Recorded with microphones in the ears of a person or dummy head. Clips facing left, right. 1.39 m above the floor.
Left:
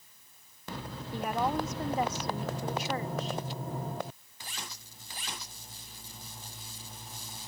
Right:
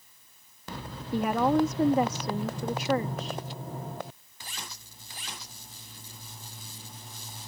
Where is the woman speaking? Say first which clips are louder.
Right 7 dB; 50° right (ahead or behind).